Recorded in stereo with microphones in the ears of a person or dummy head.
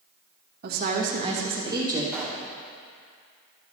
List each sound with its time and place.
0.6 s a woman speaking: 45° right (ahead or behind), 1.3 m; by 2.0 s 15° right (ahead or behind), 1.8 m
2.1 s a pop: 5° right (ahead or behind), 1.0 m